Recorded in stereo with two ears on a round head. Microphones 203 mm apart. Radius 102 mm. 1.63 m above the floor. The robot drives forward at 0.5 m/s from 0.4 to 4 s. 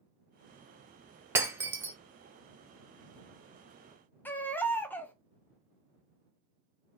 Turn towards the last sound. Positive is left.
turn(degrees=10)  # may be behind; listen again after turning